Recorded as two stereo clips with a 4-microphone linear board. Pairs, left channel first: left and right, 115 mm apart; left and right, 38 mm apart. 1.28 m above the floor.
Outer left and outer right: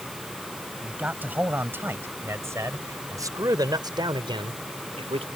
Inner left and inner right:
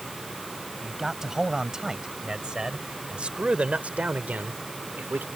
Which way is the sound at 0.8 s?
15° right (ahead or behind).